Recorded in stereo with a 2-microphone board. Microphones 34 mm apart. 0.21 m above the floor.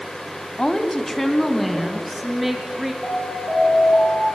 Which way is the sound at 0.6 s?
20° left (ahead or behind).